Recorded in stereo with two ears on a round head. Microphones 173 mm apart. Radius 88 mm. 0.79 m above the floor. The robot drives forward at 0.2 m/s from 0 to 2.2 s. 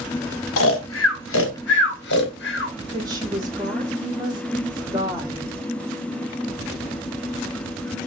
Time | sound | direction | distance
0.6 | snoring | 85° left | 0.8 m
2.9 | a woman speaking | 20° right (ahead or behind) | 1.6 m